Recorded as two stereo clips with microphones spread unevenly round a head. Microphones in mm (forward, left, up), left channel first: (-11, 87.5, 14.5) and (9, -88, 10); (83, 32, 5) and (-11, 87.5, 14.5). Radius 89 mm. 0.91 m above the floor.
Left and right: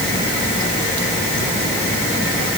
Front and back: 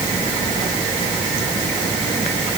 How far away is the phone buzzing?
I don't hear a phone buzzing.